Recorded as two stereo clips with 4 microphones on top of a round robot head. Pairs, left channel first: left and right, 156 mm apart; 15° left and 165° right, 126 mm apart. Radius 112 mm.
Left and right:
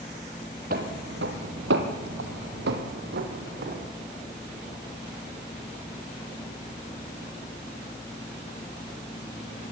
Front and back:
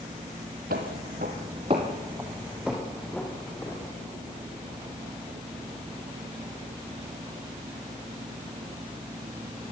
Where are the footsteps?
135° right, 1.9 m; by 3.9 s 65° right, 3.5 m.